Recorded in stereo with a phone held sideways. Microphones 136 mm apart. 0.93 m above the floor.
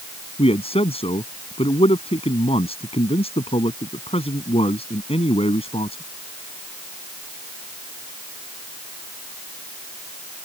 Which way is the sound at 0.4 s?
45° left (ahead or behind).